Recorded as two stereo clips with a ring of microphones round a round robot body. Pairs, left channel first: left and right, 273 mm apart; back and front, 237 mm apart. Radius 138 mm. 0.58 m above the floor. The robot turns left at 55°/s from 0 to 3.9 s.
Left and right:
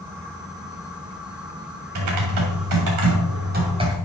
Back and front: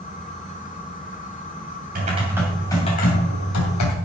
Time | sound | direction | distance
1.9 | typing on a keyboard | 60° right | 2.5 m